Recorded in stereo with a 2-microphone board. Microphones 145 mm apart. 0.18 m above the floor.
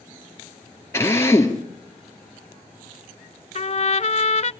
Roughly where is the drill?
Centre.